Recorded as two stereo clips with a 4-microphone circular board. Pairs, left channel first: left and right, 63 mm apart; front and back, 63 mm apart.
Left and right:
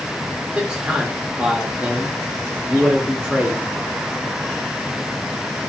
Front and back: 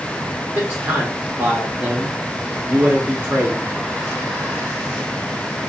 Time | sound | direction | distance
0.6 | a man speaking | 145° right | 0.9 m